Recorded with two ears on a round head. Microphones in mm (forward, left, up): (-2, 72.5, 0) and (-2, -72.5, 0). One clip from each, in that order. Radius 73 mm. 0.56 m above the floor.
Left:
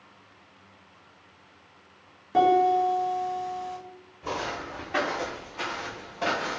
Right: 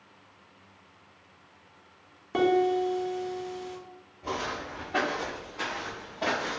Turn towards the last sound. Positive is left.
turn(degrees=50)  # may be behind; listen again after turning